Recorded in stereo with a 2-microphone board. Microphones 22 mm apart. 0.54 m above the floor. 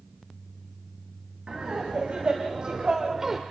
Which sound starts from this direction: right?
Laughter, at 1.5 s.